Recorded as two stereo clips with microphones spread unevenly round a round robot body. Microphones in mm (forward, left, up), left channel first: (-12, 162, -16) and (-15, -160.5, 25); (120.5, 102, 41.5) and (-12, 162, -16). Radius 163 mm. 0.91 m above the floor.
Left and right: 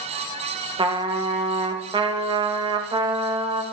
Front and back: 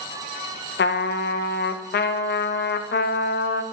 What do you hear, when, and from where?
0.8 s a trumpet: 10° right, 0.5 m